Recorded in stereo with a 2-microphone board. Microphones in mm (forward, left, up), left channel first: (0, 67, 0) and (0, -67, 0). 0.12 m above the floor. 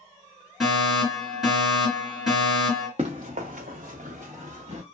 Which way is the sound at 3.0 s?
55° right (ahead or behind).